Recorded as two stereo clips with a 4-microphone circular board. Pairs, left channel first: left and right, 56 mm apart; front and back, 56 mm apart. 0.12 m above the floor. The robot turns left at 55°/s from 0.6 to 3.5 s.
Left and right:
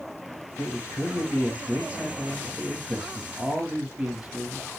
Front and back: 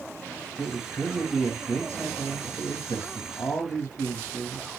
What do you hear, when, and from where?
0.6 s a man speaking: 130° left, 4 m; by 4.7 s 30° right, 4 m